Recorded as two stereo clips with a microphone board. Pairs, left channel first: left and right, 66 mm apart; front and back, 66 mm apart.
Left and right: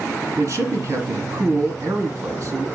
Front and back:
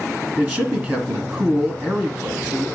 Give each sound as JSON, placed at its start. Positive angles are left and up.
{"t": 0.4, "sound": "a man speaking", "azimuth_deg": -125, "distance_m": 2.0}